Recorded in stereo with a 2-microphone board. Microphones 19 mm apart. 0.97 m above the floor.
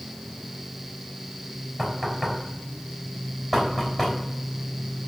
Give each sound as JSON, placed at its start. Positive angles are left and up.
{"t": 1.8, "sound": "knocking", "side_deg": 5, "distance_m": 5.5}